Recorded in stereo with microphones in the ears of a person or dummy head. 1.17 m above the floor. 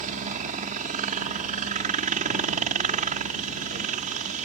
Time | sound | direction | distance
0.0 | a helicopter | 35° right (ahead or behind) | ?